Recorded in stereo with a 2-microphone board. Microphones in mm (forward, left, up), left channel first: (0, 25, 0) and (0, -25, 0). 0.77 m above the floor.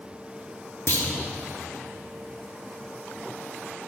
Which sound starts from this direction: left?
A clunk, at 0.9 s.